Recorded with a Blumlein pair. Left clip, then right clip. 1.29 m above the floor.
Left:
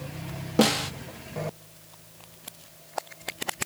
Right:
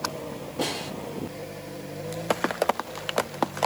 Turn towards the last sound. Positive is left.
turn(degrees=55)